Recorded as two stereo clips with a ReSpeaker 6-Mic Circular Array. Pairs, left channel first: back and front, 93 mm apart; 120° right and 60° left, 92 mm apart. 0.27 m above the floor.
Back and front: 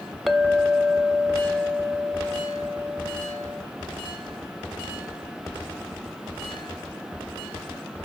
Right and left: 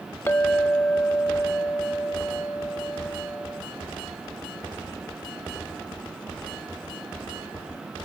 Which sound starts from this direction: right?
A clink, at 0.3 s.